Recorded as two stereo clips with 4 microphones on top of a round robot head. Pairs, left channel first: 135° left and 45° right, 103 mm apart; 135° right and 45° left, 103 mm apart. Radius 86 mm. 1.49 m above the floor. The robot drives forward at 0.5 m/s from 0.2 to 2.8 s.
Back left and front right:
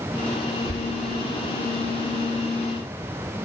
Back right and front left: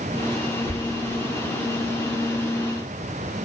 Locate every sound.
0.7 s whispering: 70° right, 1.1 m